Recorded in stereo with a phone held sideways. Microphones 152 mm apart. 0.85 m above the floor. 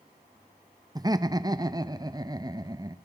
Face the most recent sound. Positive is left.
turn(degrees=-25)  # may be behind; listen again after turning